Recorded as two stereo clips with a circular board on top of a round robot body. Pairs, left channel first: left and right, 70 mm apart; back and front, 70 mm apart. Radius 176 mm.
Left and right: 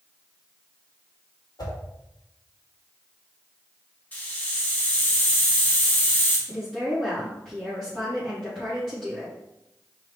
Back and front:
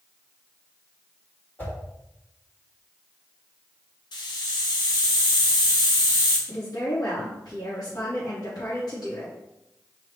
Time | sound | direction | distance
1.6 | a whoosh | 115° left | 2.5 m
4.1 | a hiss | 160° left | 0.6 m
6.5 | a woman speaking | 170° left | 3 m